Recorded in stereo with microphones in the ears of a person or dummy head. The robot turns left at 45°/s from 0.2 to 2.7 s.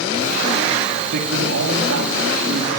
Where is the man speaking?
70° right, 3.5 m; by 2.7 s 140° right, 3.5 m.